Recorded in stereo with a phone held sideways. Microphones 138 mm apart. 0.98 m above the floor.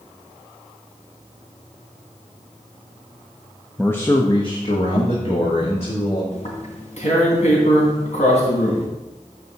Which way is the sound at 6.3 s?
60° left (ahead or behind).